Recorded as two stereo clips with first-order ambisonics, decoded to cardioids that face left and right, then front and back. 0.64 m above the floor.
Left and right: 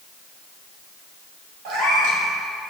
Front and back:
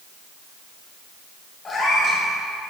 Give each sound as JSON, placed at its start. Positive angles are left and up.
{"t": 1.6, "sound": "a cat meowing", "azimuth_deg": -65, "distance_m": 1.7}